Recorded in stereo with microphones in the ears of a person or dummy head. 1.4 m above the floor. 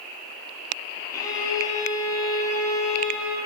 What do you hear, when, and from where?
1.1 s a violin: 25° left (ahead or behind), 1.6 m